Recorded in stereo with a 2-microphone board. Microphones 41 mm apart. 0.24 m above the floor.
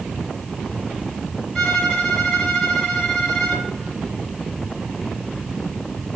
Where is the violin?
15° left (ahead or behind), 1.8 m.